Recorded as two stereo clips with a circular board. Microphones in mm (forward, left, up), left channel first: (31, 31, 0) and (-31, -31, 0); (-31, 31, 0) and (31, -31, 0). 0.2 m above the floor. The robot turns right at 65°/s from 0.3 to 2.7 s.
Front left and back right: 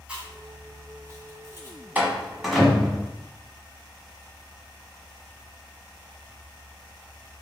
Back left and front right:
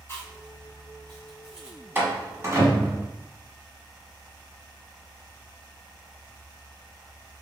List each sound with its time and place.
0.1 s chewing: 165° left, 1.9 m; by 1.8 s 100° right, 1.9 m
1.9 s a door slam: 85° right, 1.3 m; by 3.0 s 35° right, 1.3 m